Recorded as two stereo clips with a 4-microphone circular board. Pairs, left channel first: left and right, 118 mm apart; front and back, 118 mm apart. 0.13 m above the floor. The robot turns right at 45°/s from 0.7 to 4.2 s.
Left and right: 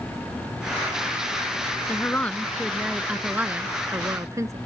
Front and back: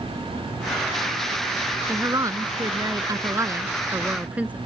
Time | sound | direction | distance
1.9 | a woman speaking | 140° left | ?